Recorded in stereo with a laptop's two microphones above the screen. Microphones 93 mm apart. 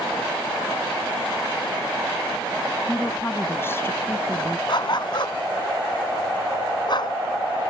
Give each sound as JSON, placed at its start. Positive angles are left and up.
{"t": 2.9, "sound": "a woman speaking", "side_deg": 25}
{"t": 4.7, "sound": "a dog barking", "side_deg": 55}